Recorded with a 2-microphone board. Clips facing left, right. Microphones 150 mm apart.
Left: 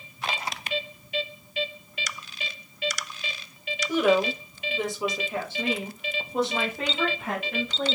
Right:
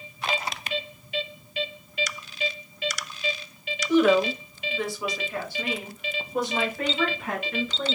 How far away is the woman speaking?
About 1.0 m.